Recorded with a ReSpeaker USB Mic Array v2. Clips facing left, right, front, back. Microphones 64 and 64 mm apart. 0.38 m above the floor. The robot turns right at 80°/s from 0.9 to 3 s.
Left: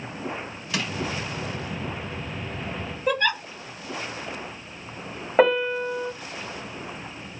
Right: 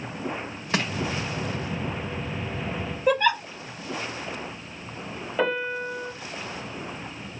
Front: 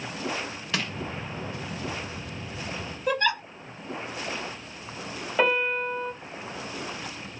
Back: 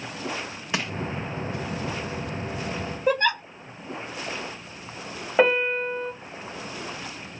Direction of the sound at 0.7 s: 120° right.